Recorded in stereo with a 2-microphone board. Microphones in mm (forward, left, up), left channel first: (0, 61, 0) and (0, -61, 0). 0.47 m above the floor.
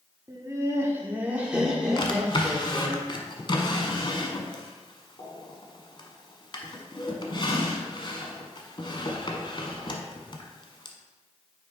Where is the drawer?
40° left (ahead or behind), 1.0 m.